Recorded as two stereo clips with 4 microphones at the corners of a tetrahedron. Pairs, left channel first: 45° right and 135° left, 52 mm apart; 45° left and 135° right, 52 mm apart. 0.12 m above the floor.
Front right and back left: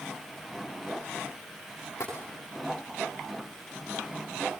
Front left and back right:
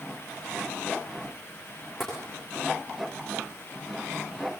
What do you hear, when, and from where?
2.0 s tapping: 45° right, 7.5 m